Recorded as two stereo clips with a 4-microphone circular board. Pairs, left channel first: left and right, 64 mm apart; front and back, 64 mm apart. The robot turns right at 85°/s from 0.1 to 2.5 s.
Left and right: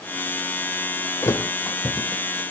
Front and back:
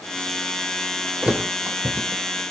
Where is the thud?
110° left, 1.6 m; by 2.4 s 150° right, 1.6 m.